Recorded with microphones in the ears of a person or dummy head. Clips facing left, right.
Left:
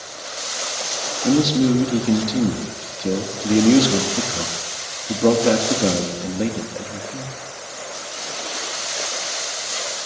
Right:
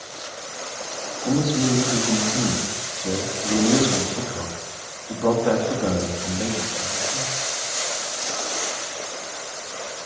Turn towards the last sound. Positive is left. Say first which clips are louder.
# left 5 dB
turn(degrees=35)  # may be behind; listen again after turning